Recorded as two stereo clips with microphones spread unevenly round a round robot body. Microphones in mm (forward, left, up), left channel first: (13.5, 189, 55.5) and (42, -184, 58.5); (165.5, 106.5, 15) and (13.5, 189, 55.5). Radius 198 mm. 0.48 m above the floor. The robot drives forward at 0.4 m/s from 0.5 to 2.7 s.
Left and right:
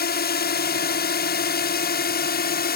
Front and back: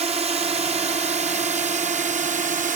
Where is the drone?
115° left; by 2.8 s 135° left.